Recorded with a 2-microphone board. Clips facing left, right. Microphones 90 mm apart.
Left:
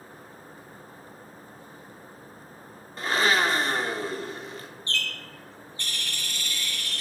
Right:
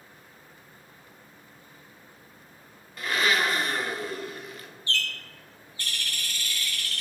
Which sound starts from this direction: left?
A blender, at 3.0 s.